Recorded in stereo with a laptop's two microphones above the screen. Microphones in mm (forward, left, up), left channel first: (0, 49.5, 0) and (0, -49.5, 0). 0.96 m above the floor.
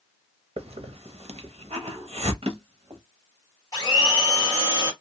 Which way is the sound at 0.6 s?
85° right.